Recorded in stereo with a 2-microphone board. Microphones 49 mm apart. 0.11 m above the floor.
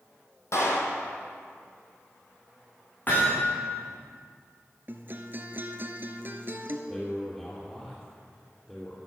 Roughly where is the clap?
Left.